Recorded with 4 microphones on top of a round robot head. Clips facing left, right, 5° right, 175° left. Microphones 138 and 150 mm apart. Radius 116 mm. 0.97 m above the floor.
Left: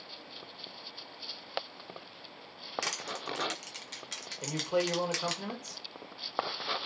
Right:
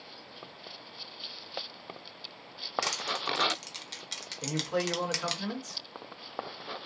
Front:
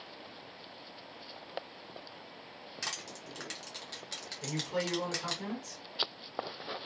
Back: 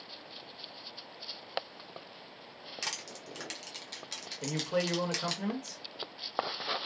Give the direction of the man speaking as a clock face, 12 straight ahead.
7 o'clock.